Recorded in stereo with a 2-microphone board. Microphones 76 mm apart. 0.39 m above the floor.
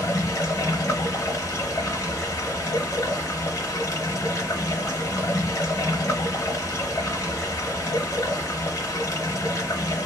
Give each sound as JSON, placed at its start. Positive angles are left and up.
{"t": 0.0, "sound": "running water", "side_deg": 45, "distance_m": 0.8}